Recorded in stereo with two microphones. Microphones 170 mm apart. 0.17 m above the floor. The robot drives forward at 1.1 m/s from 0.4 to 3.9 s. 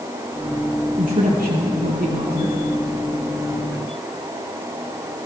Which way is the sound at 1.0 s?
55° right (ahead or behind).